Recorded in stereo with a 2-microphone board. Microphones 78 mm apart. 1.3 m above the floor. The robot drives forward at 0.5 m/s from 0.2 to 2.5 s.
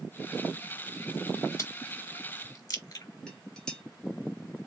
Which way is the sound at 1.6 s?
40° left (ahead or behind).